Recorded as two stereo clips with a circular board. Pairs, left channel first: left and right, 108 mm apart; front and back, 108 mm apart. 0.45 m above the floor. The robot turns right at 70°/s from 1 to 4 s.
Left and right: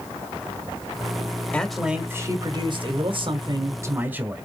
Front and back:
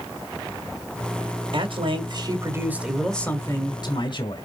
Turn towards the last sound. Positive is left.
turn(degrees=-20)